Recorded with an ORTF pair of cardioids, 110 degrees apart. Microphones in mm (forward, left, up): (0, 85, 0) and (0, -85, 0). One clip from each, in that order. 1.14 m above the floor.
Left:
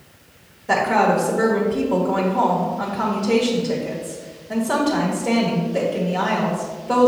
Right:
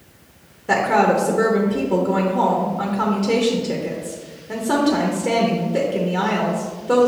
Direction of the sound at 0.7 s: 25° right.